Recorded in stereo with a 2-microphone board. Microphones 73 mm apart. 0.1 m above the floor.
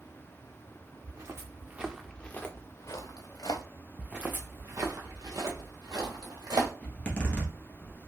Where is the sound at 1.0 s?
50° right (ahead or behind), 0.8 m; by 3.6 s 70° left (ahead or behind), 1.1 m.